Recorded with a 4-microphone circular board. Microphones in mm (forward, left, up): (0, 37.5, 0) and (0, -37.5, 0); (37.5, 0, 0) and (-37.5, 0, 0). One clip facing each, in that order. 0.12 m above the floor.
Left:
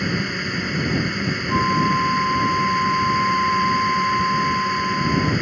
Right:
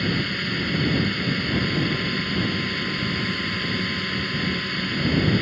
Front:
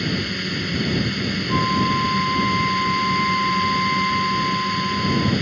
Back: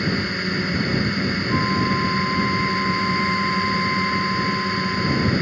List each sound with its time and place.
0.0 s a drone: 145° left
1.5 s a flute: 75° left